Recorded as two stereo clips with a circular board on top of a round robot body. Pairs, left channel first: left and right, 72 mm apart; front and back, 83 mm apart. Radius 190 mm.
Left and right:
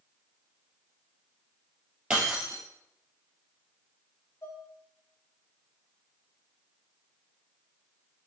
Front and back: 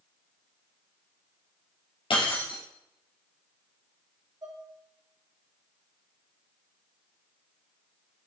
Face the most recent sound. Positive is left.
turn(degrees=140)